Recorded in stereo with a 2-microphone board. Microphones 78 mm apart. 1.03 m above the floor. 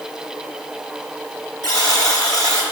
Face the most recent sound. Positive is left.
turn(degrees=45)  # may be behind; listen again after turning